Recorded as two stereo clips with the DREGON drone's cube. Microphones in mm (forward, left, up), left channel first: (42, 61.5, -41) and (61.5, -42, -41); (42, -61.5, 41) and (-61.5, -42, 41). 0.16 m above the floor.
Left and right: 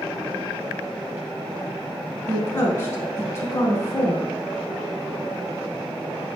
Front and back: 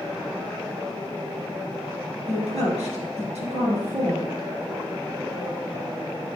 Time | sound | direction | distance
2.3 | a woman speaking | 160° left | 3.5 m